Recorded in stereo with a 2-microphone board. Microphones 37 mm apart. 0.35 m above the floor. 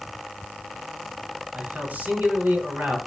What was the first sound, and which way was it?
A man speaking, 55° right (ahead or behind).